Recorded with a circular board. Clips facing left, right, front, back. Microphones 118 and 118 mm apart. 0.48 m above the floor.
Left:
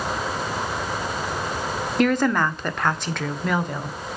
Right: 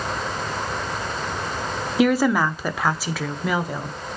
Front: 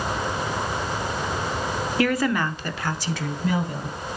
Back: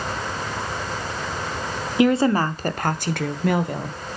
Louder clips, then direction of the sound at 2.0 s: Right 2 dB, back 6 dB; 165° right.